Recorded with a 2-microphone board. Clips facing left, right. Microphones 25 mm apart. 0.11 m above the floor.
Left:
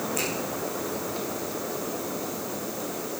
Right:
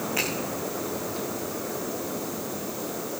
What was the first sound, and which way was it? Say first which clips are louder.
A finger snap: right 4 dB; 40° right (ahead or behind).